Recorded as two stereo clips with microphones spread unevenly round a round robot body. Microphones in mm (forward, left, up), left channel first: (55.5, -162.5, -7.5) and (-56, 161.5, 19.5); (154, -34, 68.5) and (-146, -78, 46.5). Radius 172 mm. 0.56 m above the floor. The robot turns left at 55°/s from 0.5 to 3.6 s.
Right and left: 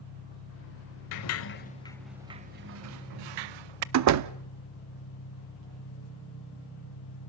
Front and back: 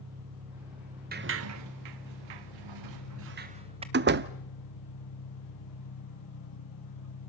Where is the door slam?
145° left, 0.6 m.